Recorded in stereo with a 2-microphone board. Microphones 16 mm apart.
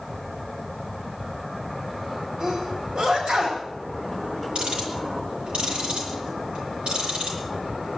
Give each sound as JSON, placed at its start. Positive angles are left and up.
{"t": 2.4, "sound": "a sneeze", "side_deg": -75, "distance_m": 5.0}
{"t": 4.5, "sound": "ticking", "side_deg": -85, "distance_m": 9.5}